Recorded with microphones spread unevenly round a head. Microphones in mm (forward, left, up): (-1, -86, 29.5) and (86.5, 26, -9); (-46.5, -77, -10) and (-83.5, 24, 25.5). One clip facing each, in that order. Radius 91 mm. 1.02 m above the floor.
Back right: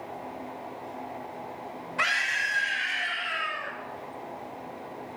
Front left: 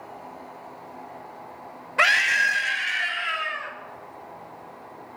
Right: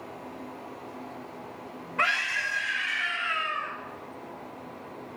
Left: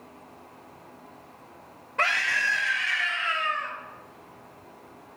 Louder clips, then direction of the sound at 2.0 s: Front left 9 dB, left 2 dB; 35° left.